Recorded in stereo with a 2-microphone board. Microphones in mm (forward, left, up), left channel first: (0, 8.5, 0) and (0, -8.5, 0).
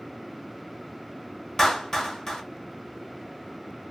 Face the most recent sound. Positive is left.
turn(degrees=30)  # may be behind; listen again after turning